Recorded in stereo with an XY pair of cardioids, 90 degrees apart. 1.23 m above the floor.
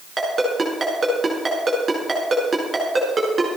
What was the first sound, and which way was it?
A ringtone, 30° right.